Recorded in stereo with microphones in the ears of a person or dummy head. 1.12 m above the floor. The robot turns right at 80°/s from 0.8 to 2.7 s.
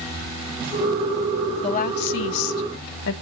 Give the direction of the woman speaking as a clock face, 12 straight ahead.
11 o'clock.